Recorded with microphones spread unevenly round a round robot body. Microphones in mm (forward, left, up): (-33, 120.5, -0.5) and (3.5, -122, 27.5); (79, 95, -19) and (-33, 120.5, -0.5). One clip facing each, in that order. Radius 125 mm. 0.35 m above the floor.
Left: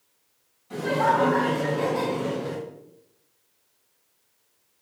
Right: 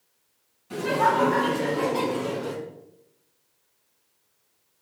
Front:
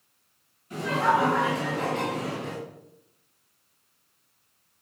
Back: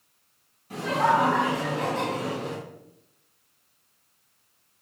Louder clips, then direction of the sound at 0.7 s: Even, back 1 dB; 150° right.